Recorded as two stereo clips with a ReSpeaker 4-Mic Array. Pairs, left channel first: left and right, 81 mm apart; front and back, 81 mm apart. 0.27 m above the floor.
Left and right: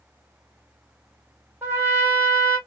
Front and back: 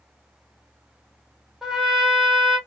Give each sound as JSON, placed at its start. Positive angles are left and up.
{"t": 1.6, "sound": "a trumpet", "azimuth_deg": -105, "distance_m": 1.4}